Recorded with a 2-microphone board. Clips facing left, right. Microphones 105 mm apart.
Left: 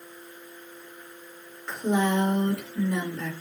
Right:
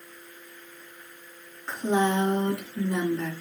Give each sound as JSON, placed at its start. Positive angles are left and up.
{"t": 1.7, "sound": "a woman speaking", "side_deg": -30, "distance_m": 3.0}